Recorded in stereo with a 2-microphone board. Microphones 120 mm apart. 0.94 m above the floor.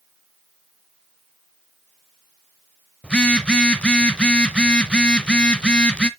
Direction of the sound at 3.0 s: 10° left (ahead or behind).